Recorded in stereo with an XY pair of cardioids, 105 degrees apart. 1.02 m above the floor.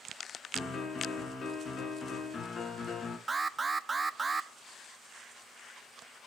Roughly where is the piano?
Ahead left.